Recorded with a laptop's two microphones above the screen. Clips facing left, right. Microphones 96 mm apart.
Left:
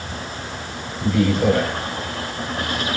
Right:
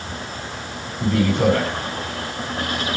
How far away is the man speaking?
About 7.5 m.